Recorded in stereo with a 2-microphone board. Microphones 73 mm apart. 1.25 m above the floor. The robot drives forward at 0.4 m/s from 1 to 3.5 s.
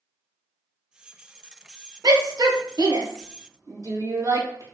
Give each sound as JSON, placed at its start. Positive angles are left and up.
{"t": 2.0, "sound": "a shout", "side_deg": -60, "distance_m": 0.7}